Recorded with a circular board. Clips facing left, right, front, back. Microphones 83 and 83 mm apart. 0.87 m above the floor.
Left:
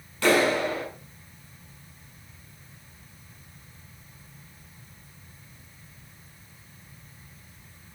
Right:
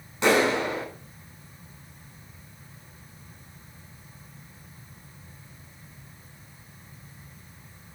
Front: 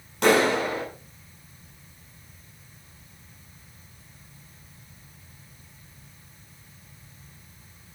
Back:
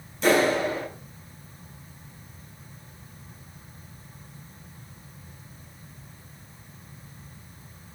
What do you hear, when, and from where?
0.2 s a clap: 20° right, 7 m